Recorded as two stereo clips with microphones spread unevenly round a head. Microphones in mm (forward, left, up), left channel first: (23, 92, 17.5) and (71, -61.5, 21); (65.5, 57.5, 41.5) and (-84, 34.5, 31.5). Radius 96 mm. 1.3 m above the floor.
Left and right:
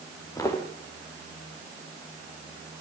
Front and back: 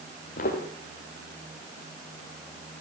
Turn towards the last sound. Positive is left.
turn(degrees=40)